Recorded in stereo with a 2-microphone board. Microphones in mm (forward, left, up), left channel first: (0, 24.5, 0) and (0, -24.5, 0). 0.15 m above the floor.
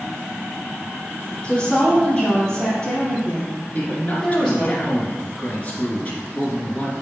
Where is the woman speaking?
20° left (ahead or behind), 3 m; by 4.7 s 5° left (ahead or behind), 4.5 m.